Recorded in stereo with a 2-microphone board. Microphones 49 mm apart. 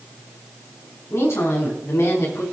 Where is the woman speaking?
75° left (ahead or behind), 5.5 m.